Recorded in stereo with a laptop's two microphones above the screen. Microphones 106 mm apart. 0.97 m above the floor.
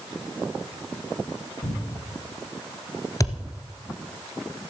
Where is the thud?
35° left (ahead or behind), 1.3 m.